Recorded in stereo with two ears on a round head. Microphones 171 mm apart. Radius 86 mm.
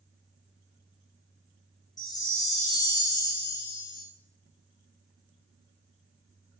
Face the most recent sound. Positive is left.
turn(degrees=20)  # may be behind; listen again after turning